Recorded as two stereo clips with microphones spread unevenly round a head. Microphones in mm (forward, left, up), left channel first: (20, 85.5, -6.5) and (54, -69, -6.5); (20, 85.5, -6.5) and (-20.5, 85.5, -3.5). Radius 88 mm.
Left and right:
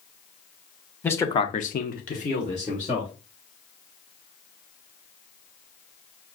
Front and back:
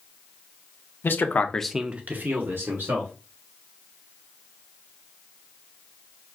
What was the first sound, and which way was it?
A man speaking, 25° left.